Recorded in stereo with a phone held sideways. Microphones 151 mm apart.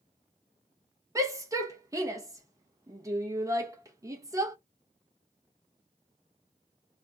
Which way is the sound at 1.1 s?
20° right (ahead or behind).